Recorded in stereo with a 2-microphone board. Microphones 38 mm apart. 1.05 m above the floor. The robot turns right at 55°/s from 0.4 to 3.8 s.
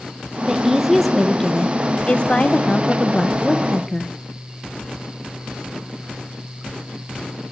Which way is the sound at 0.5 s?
30° right.